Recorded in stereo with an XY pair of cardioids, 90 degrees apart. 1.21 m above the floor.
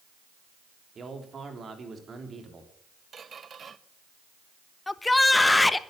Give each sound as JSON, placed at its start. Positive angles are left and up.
{"t": 0.9, "sound": "a man speaking", "azimuth_deg": -45, "distance_m": 3.5}
{"t": 3.1, "sound": "a squeak", "azimuth_deg": -45, "distance_m": 1.0}
{"t": 4.9, "sound": "a shout", "azimuth_deg": 20, "distance_m": 1.1}